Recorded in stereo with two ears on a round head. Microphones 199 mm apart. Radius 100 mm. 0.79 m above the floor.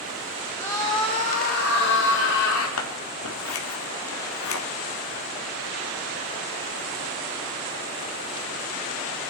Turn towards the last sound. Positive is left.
turn(degrees=70)  # may be behind; listen again after turning